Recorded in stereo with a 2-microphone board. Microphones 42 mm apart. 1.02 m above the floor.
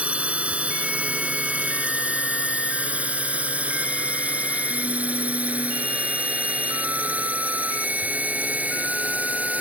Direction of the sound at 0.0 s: 30° right (ahead or behind).